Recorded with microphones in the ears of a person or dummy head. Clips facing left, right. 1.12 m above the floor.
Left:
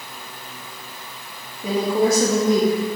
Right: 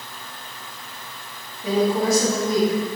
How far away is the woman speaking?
About 1.4 m.